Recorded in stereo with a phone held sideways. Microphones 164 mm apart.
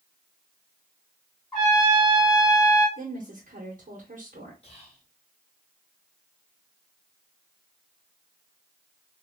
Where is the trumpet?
20° left (ahead or behind), 1.8 m.